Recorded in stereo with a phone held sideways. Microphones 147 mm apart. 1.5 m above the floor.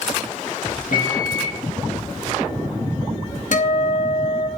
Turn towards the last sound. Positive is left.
turn(degrees=65)  # may be behind; listen again after turning